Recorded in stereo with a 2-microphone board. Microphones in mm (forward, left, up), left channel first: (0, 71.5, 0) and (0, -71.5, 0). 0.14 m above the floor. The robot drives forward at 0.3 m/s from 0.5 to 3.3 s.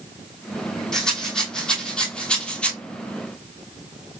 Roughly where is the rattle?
Centre.